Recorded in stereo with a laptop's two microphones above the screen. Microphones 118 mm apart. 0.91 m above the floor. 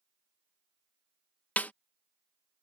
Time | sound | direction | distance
1.6 | a snare drum | 15° left (ahead or behind) | ?